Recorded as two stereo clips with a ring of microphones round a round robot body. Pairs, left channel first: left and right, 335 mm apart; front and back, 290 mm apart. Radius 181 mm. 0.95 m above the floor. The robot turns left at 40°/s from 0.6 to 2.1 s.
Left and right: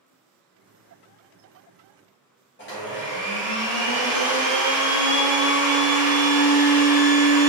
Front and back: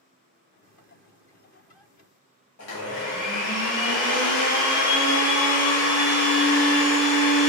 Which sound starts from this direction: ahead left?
A blender, at 2.6 s.